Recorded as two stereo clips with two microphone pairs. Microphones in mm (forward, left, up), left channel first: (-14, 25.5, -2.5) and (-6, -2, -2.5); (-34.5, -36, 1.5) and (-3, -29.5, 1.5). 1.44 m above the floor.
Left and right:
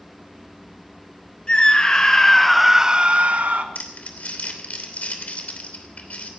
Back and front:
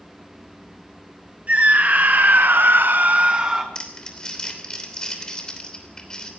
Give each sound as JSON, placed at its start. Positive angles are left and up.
{"t": 1.5, "sound": "a scream", "azimuth_deg": 55, "distance_m": 2.5}
{"t": 3.8, "sound": "crumpling", "azimuth_deg": 125, "distance_m": 3.0}